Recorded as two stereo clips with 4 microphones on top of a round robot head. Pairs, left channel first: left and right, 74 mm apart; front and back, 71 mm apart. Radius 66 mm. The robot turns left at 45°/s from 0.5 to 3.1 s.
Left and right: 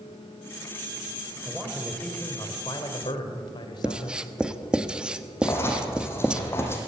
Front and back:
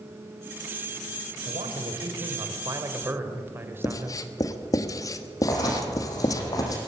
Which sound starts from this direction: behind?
A man speaking, at 1.4 s.